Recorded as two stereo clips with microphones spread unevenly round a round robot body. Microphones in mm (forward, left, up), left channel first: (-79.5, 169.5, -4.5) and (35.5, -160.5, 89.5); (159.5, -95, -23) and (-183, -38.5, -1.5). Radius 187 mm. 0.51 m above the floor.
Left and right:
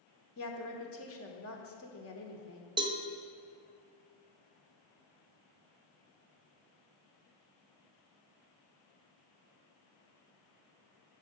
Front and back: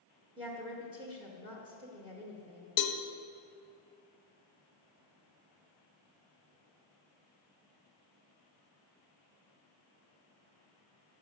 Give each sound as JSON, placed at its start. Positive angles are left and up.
{"t": 0.4, "sound": "a woman speaking", "azimuth_deg": 95, "distance_m": 1.1}
{"t": 2.8, "sound": "a cowbell", "azimuth_deg": 15, "distance_m": 0.6}